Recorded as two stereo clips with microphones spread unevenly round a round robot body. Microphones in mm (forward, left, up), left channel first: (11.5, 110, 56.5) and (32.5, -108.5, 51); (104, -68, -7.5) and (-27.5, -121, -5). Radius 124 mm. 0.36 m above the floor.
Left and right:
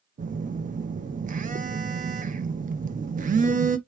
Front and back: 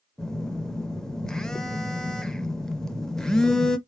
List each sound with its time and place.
0.2 s a phone buzzing: 60° right, 0.7 m